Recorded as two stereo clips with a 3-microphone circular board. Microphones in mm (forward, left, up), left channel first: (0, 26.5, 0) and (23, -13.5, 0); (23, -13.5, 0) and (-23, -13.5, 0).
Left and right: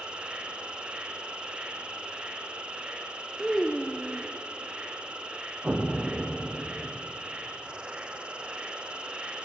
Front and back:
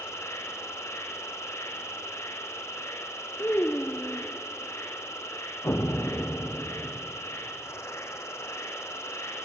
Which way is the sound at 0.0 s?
10° left.